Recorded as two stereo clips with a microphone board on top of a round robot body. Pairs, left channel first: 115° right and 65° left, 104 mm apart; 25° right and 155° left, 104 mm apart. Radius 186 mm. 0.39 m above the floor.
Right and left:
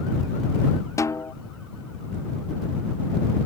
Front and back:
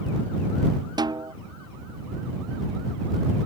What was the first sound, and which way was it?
A snare drum, 165° right.